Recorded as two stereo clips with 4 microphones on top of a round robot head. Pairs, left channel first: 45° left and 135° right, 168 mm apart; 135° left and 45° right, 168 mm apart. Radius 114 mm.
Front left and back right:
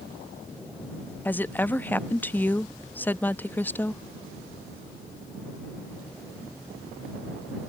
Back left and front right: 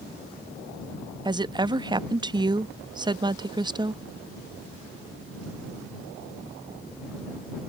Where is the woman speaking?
20° right.